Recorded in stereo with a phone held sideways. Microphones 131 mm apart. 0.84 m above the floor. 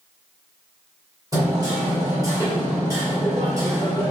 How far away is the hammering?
About 1.8 m.